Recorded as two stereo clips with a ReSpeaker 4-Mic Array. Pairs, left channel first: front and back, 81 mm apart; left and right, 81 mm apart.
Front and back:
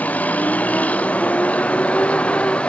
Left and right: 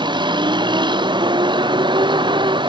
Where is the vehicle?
70° right; by 2.7 s 75° right.